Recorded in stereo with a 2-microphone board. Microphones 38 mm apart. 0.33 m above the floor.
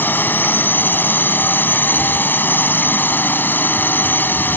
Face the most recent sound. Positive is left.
turn(degrees=60)  # may be behind; listen again after turning